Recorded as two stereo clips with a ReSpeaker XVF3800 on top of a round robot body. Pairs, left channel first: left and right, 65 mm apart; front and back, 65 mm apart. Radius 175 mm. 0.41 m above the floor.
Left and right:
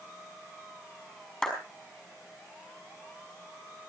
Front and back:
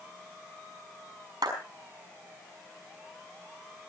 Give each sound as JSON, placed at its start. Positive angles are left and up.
{"t": 1.4, "sound": "a clap", "azimuth_deg": 170, "distance_m": 5.5}